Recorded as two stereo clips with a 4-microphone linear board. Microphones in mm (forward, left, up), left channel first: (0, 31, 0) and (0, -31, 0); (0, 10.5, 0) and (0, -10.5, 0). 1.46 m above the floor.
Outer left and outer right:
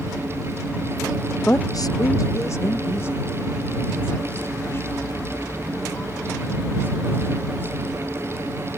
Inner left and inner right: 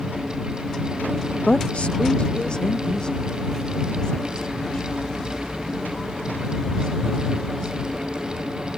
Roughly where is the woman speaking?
Left.